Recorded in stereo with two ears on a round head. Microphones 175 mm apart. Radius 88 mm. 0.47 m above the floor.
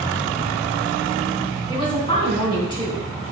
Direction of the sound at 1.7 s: 25° left (ahead or behind).